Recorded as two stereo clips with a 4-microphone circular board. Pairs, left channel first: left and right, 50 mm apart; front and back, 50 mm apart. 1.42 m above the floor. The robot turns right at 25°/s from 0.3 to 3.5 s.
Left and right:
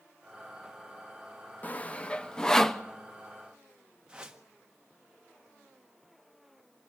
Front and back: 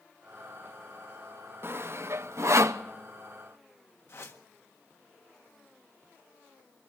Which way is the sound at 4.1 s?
20° right.